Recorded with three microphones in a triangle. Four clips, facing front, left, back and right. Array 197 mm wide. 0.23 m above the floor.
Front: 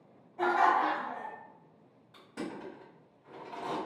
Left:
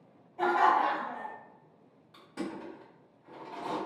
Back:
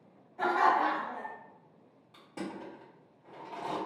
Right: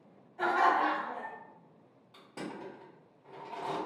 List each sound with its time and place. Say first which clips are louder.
0.4 s laughter: left 2 dB, even; 65° left, 1.1 m
2.1 s crushing: left 4 dB, even; 145° right, 1.4 m